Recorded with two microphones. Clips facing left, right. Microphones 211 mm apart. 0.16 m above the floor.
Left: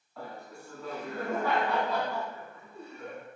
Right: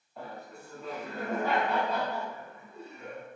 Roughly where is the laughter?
Right.